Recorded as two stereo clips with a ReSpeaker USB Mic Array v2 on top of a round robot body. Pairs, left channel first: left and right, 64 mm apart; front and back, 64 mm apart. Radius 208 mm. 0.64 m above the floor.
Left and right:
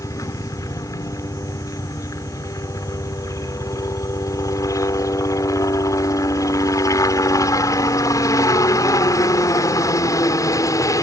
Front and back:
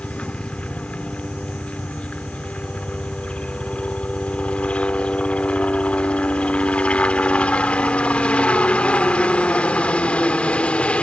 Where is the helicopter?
70° left.